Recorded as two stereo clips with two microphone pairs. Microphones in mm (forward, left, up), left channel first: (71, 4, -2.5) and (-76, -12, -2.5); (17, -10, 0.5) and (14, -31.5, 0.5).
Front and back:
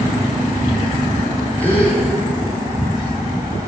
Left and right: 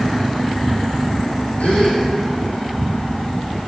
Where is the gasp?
85° left, 4 m.